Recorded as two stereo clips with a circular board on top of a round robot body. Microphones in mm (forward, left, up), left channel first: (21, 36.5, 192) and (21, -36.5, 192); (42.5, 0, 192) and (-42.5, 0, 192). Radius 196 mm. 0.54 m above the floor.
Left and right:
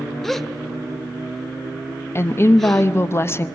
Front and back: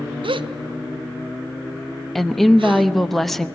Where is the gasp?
175° left, 0.7 m.